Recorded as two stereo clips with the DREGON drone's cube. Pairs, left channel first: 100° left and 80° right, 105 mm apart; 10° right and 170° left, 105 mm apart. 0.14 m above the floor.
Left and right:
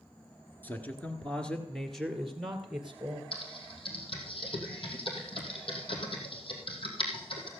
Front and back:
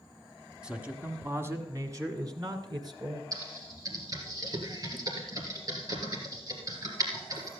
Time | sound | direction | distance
0.6 | a man speaking | 105° left | 1.2 m
3.3 | typing on a keyboard | 120° left | 3 m